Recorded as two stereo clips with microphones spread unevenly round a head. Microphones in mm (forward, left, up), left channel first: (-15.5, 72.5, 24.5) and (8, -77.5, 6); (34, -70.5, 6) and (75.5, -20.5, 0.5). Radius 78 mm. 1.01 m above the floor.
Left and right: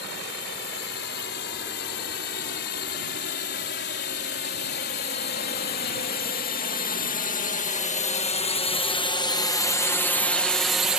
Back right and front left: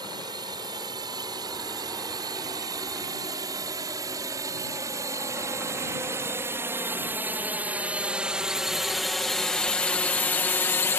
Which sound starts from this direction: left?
A drone, at 0.0 s.